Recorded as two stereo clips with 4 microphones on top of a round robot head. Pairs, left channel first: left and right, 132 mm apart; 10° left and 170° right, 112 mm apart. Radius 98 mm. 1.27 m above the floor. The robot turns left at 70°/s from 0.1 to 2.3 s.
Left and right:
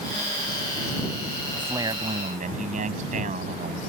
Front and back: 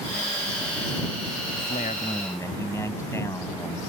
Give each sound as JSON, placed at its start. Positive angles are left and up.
{"t": 1.5, "sound": "a man speaking", "azimuth_deg": -10}